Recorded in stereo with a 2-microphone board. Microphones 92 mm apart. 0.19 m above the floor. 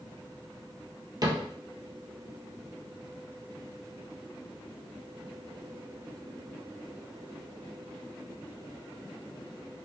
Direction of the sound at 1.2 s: 45° right (ahead or behind).